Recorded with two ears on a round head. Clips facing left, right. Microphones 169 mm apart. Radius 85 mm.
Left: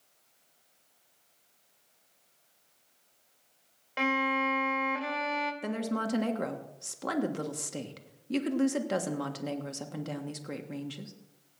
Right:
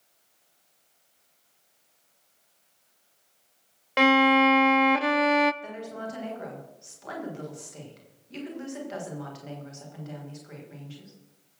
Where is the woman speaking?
60° left (ahead or behind), 1.6 m.